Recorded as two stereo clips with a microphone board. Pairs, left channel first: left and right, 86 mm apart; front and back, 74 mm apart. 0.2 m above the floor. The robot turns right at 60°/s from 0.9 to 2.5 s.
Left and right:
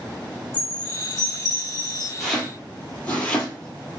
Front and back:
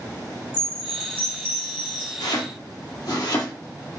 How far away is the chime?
About 2 m.